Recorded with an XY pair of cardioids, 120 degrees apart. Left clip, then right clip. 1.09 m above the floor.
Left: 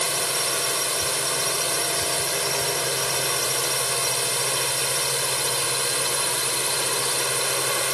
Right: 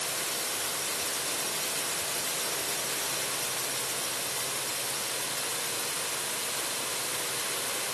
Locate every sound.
0.0 s a drone: 70° left